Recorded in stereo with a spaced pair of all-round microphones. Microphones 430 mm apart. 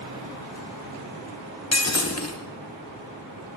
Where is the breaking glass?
35° left (ahead or behind), 0.8 m.